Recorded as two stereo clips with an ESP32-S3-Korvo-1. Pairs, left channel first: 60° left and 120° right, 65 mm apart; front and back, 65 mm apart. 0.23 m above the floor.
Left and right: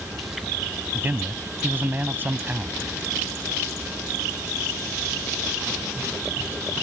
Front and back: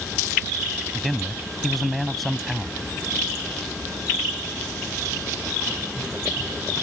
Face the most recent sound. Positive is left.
turn(degrees=-90)